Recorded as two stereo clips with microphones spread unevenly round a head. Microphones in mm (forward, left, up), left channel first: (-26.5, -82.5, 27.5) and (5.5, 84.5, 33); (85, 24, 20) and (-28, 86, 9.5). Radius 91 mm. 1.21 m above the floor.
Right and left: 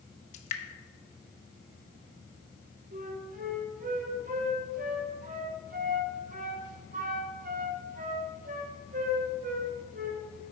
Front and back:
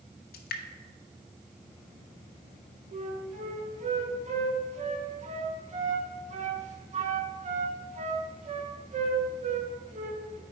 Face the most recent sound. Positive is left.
turn(degrees=125)